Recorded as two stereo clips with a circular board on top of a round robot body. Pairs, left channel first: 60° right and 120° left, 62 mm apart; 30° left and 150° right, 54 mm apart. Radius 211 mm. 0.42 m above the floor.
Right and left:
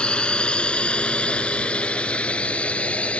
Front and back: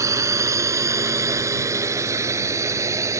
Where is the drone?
135° right; by 3.2 s 130° right.